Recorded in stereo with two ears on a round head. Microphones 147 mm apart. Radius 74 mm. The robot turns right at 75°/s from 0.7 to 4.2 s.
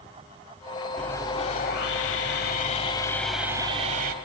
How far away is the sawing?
About 1.3 m.